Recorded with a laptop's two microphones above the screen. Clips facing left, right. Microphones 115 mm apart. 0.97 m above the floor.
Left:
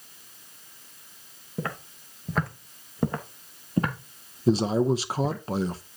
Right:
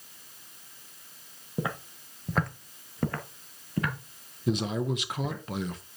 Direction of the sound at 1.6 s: 15° right (ahead or behind).